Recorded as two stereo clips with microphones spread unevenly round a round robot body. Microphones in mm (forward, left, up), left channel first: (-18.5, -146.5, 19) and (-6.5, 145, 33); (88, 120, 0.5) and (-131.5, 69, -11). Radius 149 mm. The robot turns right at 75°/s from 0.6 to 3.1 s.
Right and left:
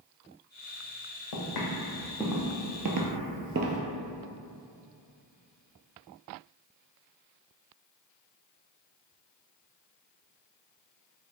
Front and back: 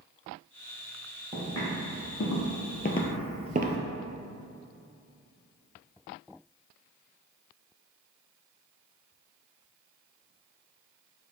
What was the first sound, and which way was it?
Footsteps, 85° right.